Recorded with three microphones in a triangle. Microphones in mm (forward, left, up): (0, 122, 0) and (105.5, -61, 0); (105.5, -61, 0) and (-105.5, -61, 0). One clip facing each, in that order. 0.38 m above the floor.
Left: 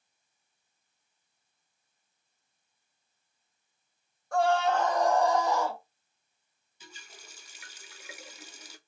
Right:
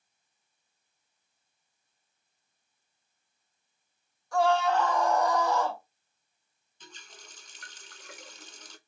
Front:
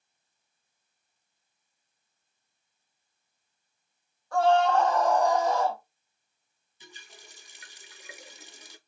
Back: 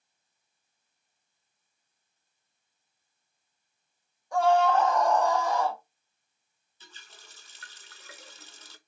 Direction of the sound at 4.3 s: 110° left.